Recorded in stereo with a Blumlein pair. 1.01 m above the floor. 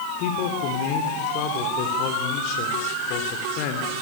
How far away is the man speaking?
About 2.5 m.